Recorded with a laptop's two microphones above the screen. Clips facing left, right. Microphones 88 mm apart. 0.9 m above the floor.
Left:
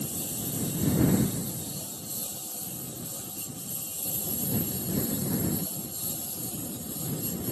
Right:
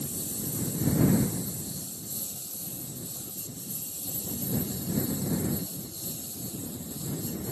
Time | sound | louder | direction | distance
0.0 | a lawn mower | left 1 dB | 85° left | ?